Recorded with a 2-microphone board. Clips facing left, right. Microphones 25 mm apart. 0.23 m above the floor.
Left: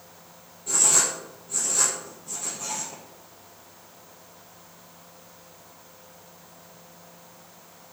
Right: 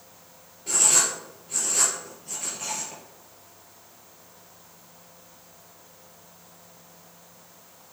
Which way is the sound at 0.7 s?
55° right (ahead or behind).